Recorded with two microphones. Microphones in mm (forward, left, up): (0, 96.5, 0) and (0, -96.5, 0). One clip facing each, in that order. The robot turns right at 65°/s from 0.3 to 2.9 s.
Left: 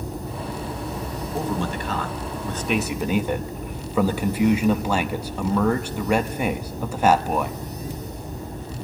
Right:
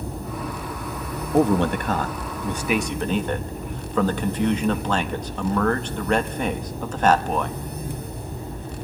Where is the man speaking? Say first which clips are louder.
Right 9 dB; 90° right, 0.8 m; by 7.6 s 10° left, 0.8 m.